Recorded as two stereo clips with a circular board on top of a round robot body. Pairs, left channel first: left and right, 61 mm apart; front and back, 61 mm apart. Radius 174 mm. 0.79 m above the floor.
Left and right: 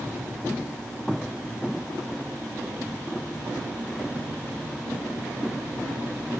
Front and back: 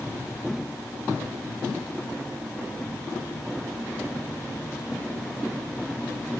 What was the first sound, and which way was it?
Only background noise.